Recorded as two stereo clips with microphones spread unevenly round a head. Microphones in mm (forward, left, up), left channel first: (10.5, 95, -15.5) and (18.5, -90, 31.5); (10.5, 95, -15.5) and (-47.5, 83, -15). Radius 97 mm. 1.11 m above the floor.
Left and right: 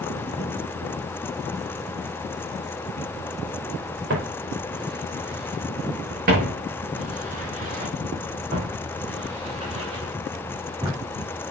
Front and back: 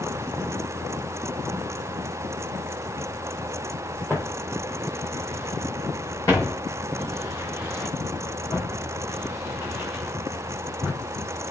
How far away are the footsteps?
About 5.5 m.